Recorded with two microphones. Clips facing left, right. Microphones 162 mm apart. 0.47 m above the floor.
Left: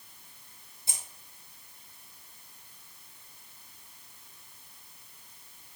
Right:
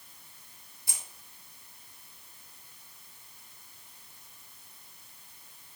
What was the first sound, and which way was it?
Keys jangling, 20° left (ahead or behind).